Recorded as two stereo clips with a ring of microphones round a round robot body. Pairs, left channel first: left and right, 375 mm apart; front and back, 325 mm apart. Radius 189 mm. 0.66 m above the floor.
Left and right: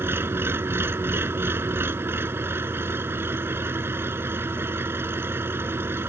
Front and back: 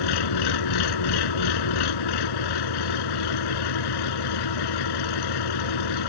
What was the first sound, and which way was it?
An engine running, 5° right.